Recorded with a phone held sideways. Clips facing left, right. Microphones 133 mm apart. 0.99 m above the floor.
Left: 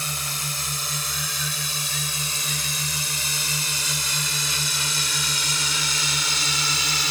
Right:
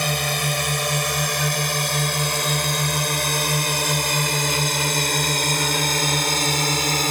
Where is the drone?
70° right (ahead or behind); by 7.1 s 50° right (ahead or behind).